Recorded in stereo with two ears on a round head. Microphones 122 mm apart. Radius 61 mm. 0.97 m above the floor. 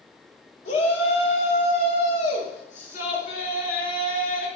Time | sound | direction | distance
0.7 | a shout | 60° left (ahead or behind) | 5 m